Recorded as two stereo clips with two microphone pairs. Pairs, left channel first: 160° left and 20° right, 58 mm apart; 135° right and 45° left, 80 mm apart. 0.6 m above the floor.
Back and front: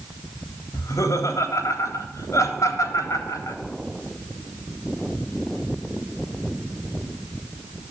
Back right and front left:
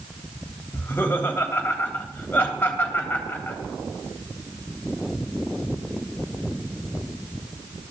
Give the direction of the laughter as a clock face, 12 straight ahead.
7 o'clock.